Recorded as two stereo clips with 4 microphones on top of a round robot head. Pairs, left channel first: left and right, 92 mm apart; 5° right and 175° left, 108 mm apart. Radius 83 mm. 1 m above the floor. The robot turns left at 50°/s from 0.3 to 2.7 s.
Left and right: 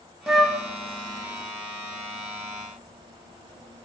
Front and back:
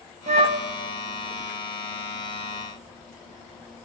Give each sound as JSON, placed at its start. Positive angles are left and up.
{"t": 0.3, "sound": "a flute", "azimuth_deg": 180, "distance_m": 1.3}